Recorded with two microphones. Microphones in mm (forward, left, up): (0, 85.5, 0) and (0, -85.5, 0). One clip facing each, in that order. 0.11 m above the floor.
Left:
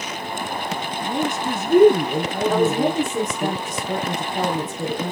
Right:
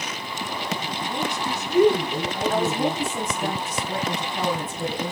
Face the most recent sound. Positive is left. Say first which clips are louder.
# left 5 dB
turn(degrees=40)  # may be behind; listen again after turning